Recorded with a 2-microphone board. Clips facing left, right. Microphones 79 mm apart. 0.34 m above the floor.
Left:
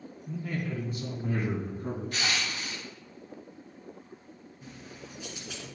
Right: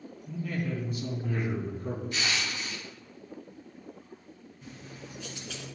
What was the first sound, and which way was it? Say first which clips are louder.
A man speaking: right 1 dB; 25° left (ahead or behind).